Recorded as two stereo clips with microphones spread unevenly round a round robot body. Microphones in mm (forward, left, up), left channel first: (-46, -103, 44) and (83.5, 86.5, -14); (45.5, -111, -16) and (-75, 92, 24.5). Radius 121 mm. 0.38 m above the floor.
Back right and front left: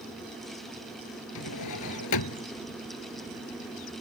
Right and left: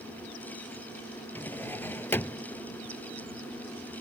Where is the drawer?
140° right.